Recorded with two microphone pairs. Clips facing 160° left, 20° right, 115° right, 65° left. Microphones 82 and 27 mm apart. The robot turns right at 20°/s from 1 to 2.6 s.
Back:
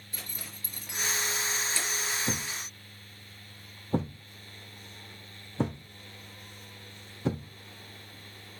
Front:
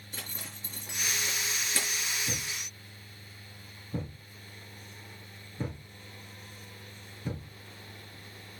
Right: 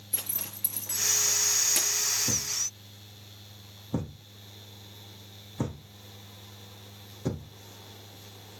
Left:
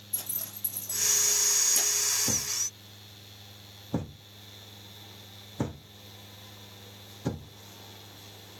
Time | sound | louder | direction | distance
0.1 | a zipper | front 1 dB, right 3 dB | 85° right | 5 m
2.3 | a thud | back 4 dB, even | 140° left | 2.5 m